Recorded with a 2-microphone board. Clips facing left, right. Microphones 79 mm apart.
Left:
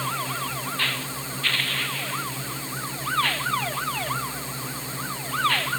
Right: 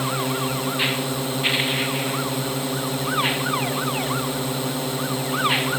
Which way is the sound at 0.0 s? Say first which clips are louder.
Right 5 dB; 70° right (ahead or behind).